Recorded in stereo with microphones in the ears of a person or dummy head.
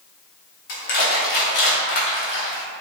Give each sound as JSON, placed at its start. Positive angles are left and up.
{"t": 0.7, "sound": "crushing", "side_deg": 40, "distance_m": 0.7}